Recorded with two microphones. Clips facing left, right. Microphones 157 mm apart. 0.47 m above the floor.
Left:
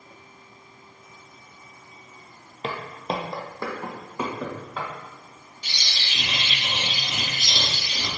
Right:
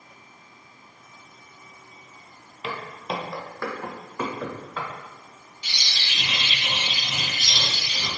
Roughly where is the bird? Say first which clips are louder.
Even; left.